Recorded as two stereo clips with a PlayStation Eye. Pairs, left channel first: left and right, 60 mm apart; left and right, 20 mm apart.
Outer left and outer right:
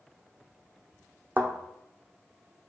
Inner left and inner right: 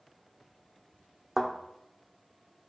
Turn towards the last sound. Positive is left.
turn(degrees=-35)  # may be behind; listen again after turning